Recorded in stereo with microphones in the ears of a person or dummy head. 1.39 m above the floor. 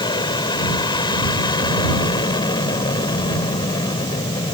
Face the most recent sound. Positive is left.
turn(degrees=30)  # may be behind; listen again after turning